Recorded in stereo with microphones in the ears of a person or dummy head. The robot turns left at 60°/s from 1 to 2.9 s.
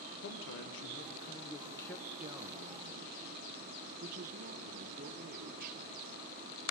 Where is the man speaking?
65° left, 1.6 m; by 5.8 s 50° right, 1.6 m.